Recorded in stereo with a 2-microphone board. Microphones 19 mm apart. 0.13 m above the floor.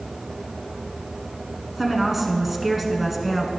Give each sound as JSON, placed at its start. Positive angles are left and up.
{"t": 1.8, "sound": "a woman speaking", "side_deg": -10, "distance_m": 1.1}